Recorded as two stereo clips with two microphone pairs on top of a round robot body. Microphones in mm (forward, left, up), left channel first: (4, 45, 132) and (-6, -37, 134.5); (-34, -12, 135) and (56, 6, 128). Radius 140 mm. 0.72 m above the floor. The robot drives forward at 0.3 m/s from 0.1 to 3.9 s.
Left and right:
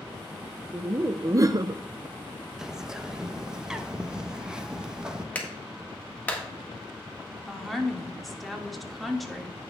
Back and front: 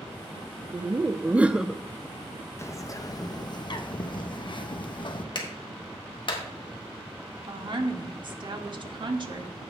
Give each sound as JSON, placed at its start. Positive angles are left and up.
{"t": 0.7, "sound": "laughter", "azimuth_deg": -35, "distance_m": 0.6}
{"t": 2.6, "sound": "a bird", "azimuth_deg": -175, "distance_m": 0.7}
{"t": 5.3, "sound": "a clap", "azimuth_deg": 155, "distance_m": 1.5}
{"t": 7.5, "sound": "a woman speaking", "azimuth_deg": -5, "distance_m": 1.7}